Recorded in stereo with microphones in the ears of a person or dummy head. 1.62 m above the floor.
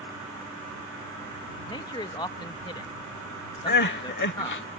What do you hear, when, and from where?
1.7 s a man speaking: 20° left (ahead or behind)
3.7 s crying: 50° left (ahead or behind)